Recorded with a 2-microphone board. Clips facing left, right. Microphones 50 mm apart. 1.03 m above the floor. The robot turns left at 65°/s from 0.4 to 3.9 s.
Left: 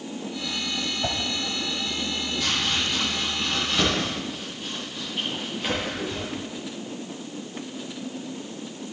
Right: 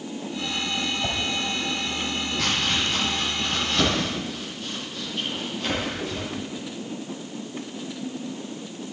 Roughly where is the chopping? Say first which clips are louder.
Right 1 dB; right.